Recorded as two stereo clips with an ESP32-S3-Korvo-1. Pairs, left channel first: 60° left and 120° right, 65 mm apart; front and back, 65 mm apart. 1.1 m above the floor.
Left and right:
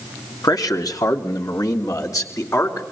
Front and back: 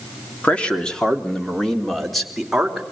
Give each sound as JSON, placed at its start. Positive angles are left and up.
{"t": 0.4, "sound": "a man speaking", "azimuth_deg": 70, "distance_m": 3.0}